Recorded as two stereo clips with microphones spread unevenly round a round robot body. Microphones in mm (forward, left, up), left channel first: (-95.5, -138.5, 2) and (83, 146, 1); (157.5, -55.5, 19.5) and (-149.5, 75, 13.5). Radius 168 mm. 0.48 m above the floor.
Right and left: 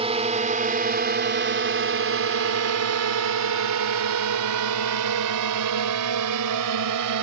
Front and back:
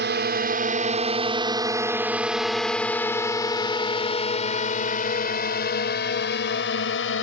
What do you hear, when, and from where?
0.0 s a drone: 120° left; by 7.2 s 30° left